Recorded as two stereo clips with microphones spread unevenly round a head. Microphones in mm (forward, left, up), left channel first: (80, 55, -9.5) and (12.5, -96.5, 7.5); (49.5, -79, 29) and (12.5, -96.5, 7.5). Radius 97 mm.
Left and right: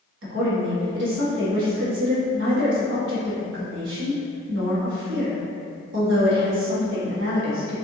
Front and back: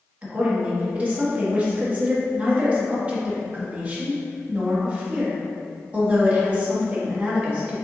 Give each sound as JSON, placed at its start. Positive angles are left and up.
{"t": 0.2, "sound": "a woman speaking", "azimuth_deg": -120, "distance_m": 1.7}